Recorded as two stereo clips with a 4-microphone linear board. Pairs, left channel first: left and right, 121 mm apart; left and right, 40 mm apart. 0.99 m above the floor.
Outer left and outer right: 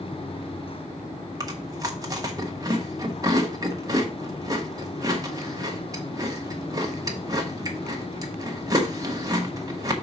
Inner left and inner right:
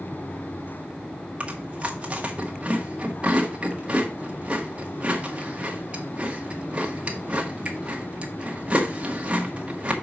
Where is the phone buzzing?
I don't hear a phone buzzing.